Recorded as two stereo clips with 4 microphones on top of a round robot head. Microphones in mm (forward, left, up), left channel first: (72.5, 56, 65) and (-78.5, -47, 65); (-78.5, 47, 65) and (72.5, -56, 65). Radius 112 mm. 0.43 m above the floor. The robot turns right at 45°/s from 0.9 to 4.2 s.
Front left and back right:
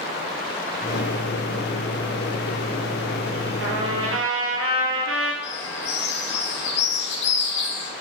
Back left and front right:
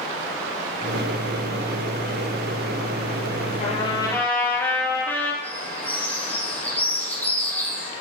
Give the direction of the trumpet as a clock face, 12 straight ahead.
5 o'clock.